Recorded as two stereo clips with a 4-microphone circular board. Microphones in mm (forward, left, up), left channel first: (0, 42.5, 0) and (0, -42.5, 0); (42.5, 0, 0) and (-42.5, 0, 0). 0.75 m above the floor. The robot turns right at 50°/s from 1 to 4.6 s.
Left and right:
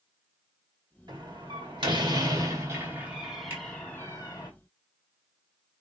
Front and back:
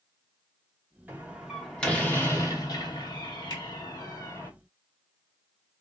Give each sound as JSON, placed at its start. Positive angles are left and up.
{"t": 1.1, "sound": "a door slam", "azimuth_deg": -115, "distance_m": 1.1}
{"t": 3.5, "sound": "a finger snap", "azimuth_deg": -25, "distance_m": 1.6}